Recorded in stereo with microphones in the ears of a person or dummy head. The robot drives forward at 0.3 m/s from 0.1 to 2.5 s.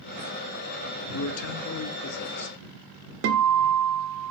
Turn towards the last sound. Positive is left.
turn(degrees=-65)  # may be behind; listen again after turning